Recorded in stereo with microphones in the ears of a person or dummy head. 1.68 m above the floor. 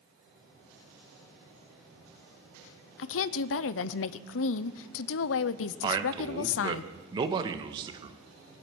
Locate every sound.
3.0 s a woman speaking: 70° left (ahead or behind), 0.7 m
5.8 s a man speaking: 25° right (ahead or behind), 1.4 m